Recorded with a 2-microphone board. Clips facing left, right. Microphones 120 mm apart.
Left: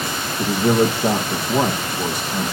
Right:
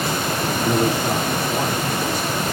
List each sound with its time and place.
0.4 s a man speaking: 55° left (ahead or behind), 4.5 m